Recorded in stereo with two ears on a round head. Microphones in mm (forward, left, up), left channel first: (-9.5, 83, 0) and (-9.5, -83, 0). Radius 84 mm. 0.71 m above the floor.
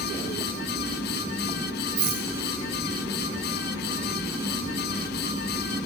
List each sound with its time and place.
2.0 s a rattle: 65° right (ahead or behind), 5 m